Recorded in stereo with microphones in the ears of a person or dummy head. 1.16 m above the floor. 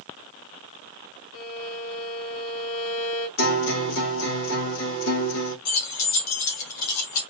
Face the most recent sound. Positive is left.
turn(degrees=85)